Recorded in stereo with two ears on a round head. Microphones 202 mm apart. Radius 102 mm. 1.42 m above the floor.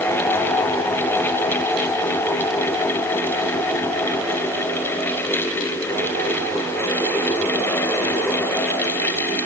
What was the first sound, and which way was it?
Only background noise.